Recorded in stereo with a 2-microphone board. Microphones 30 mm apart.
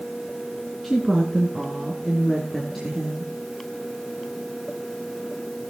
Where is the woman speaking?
10° left (ahead or behind), 2 m; by 3.3 s centre (ahead or behind), 3.5 m.